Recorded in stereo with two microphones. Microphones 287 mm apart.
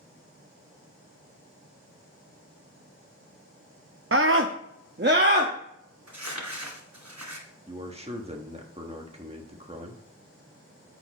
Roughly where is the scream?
Right.